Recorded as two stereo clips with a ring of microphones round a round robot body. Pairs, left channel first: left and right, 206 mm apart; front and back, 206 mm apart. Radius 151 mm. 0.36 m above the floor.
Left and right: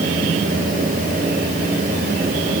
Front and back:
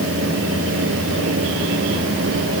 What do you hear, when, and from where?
Only background noise.